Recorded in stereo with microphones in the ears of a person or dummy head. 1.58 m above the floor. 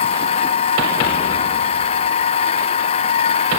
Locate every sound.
0.0 s a machine running: 35° left (ahead or behind)